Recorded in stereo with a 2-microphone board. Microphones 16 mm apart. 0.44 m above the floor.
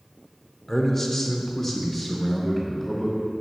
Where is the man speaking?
20° left (ahead or behind), 0.8 m; by 3.2 s 15° left (ahead or behind), 1.2 m.